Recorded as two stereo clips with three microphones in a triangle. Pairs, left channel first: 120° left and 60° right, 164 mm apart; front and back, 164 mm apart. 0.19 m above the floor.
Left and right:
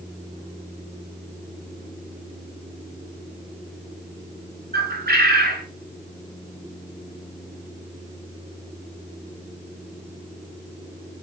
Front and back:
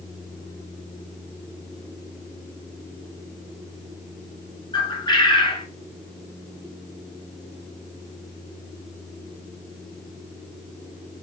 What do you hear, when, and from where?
4.7 s a bird: 65° right, 0.6 m